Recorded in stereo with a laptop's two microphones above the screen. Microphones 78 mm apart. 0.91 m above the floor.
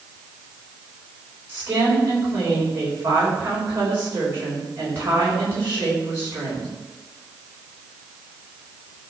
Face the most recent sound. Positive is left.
turn(degrees=-30)  # may be behind; listen again after turning